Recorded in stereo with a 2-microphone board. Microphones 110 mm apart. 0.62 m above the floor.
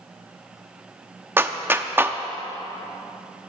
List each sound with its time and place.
1.4 s a clap: 20° right (ahead or behind), 0.6 m